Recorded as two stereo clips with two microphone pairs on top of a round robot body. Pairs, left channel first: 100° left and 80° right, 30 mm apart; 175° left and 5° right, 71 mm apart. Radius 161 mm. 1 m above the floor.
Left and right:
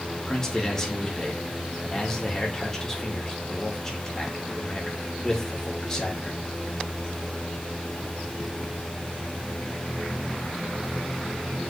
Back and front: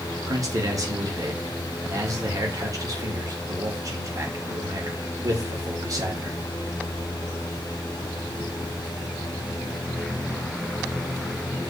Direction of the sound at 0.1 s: 25° left.